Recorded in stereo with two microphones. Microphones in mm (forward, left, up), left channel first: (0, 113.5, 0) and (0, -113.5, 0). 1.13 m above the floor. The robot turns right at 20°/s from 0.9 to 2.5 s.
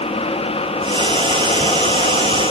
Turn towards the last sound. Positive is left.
No sound to turn to.